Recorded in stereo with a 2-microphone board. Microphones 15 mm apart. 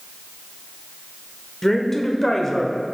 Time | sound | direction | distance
1.6 | a woman speaking | 30° left (ahead or behind) | 1.1 m